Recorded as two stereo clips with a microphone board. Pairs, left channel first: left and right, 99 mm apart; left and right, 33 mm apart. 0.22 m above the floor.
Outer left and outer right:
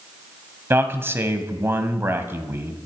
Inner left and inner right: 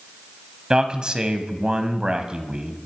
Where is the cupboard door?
No cupboard door in this recording.